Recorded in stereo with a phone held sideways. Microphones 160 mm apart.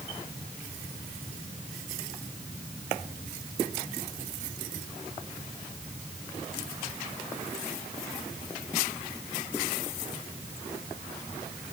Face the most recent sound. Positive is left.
No sound to turn to.